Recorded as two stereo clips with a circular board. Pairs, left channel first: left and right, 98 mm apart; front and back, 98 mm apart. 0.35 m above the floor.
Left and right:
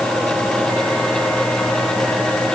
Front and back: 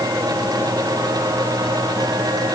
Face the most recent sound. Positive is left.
No sound to turn to.